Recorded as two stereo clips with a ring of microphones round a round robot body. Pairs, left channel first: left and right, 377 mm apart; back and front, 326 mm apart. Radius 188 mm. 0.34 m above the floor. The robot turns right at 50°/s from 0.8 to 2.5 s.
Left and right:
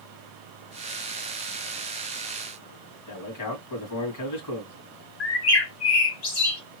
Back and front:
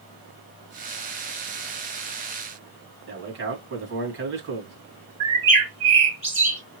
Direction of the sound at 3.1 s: 50° left.